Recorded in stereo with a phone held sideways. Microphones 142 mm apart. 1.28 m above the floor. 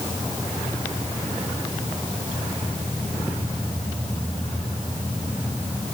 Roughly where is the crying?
No crying in this recording.